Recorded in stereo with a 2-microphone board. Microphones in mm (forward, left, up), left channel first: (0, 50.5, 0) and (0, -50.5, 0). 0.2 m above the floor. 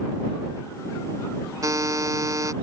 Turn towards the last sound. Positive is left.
turn(degrees=-35)  # may be behind; listen again after turning